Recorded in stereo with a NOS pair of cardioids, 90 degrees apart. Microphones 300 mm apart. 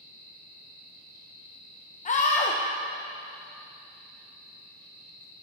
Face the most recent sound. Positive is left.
turn(degrees=25)